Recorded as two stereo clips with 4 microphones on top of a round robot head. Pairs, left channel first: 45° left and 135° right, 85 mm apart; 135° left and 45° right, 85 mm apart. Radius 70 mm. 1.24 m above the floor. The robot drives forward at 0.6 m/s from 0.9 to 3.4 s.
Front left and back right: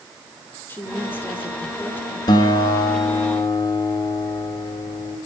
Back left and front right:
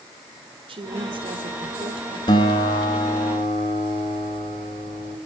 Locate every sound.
0.7 s a woman speaking: 20° right, 5 m; by 2.2 s 25° right, 4 m
2.3 s a guitar: 90° left, 3.5 m; by 5.2 s 100° left, 3.5 m